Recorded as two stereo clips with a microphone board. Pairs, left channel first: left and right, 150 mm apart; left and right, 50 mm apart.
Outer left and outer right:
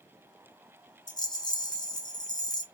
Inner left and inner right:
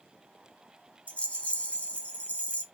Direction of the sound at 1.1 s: 30° left (ahead or behind).